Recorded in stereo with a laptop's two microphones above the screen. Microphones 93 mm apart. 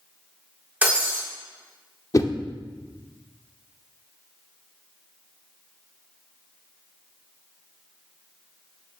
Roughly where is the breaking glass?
Centre.